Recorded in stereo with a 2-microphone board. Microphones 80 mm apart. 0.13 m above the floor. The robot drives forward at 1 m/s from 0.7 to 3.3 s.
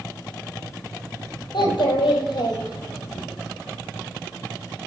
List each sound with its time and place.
1.5 s a child speaking: 70° left (ahead or behind), 2 m; by 3.2 s 55° left (ahead or behind), 2.5 m